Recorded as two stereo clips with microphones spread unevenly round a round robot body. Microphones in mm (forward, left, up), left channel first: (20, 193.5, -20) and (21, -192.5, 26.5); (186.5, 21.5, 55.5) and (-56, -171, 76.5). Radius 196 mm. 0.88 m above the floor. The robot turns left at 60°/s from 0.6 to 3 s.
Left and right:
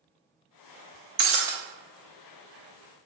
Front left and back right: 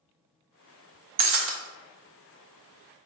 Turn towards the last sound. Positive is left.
turn(degrees=100)